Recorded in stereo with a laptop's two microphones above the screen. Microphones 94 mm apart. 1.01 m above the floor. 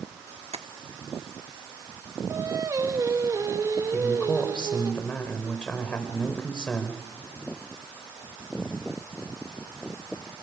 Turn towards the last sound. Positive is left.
turn(degrees=10)  # may be behind; listen again after turning